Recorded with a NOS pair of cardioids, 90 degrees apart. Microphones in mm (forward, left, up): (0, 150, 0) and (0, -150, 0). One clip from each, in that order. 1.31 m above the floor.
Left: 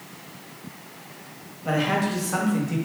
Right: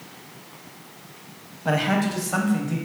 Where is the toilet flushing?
No toilet flushing in this recording.